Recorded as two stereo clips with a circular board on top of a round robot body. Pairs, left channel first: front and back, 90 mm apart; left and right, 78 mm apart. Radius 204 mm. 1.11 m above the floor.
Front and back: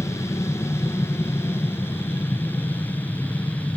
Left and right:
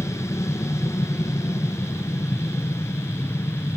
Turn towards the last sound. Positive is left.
turn(degrees=60)